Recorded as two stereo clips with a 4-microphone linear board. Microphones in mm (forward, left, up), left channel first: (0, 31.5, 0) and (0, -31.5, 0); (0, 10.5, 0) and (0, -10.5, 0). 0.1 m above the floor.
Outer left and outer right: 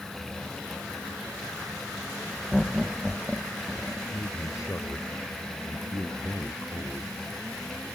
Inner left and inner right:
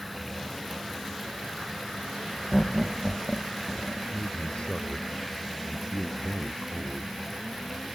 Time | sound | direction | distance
2.5 | laughter | centre (ahead or behind) | ?
4.1 | a man speaking | 55° left (ahead or behind) | ?